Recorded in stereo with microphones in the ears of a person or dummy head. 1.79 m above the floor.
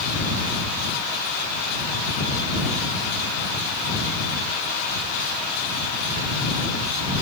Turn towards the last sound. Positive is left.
No sound to turn to.